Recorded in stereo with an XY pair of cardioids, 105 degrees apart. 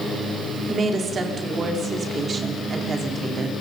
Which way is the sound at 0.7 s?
40° right.